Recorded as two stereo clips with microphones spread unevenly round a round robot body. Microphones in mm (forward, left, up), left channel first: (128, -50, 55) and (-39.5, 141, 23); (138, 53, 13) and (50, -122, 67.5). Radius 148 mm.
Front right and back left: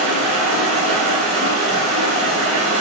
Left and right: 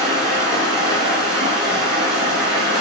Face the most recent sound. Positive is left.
turn(degrees=-160)